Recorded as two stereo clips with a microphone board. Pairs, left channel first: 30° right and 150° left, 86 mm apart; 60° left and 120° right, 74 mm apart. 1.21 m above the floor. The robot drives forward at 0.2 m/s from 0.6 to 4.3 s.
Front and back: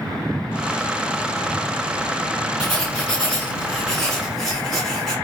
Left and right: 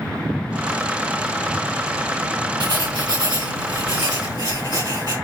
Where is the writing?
105° right, 1.7 m; by 5.2 s 115° right, 1.8 m.